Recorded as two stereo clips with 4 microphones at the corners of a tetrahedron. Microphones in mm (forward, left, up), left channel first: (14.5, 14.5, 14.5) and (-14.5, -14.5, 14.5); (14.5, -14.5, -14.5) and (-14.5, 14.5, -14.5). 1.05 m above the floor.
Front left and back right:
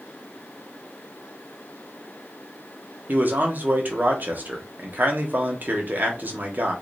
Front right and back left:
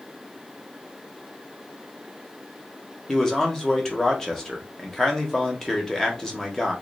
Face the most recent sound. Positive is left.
turn(degrees=-115)